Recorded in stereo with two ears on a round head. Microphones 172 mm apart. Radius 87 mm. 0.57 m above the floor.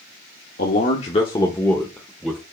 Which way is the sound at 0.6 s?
50° left (ahead or behind).